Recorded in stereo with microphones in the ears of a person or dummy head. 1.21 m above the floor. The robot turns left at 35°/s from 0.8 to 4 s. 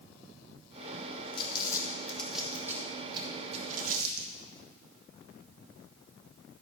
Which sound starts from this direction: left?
Crumpling, at 1.3 s.